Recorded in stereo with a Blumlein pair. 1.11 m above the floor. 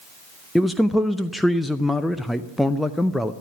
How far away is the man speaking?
About 0.5 m.